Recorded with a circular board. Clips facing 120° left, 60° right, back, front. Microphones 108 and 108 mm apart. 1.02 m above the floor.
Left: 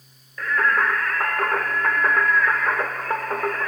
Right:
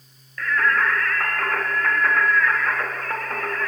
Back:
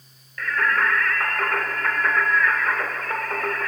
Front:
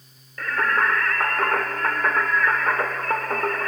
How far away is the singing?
About 0.6 m.